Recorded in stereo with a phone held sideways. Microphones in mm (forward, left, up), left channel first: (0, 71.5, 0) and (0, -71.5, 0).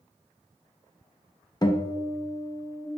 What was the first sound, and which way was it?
A guitar, 30° left (ahead or behind).